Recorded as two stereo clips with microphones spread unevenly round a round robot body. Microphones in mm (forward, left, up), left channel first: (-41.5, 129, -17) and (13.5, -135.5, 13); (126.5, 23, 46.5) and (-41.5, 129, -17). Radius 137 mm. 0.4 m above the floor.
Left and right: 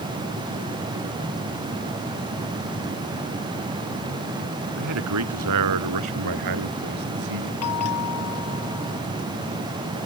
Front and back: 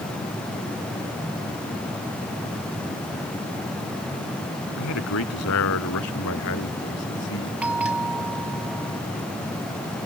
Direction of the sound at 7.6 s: 65° left.